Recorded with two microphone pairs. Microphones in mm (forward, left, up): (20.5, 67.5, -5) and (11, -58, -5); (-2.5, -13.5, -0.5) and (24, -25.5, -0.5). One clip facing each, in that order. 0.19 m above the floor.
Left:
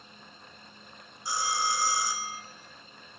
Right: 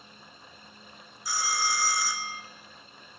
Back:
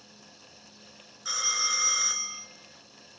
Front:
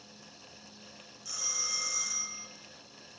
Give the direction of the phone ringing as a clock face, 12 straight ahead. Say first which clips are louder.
Left 1 dB, back 8 dB; 7 o'clock.